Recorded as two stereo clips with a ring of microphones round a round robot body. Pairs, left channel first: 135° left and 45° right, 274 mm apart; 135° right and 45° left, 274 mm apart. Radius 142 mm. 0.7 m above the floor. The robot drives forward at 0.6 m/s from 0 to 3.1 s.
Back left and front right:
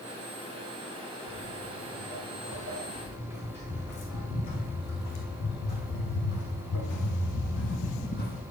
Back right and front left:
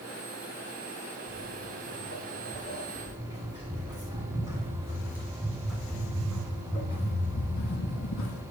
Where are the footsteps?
95° left, 4 m; by 8.4 s 165° right, 1.4 m.